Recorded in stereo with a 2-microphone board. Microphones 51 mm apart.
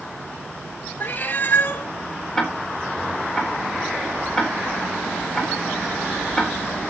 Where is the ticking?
5° left (ahead or behind), 4 m.